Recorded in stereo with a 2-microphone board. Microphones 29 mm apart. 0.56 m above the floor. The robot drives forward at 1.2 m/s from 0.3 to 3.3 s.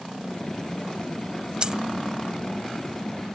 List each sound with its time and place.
1.6 s a dropped coin: 35° right (ahead or behind); by 1.8 s 30° right (ahead or behind)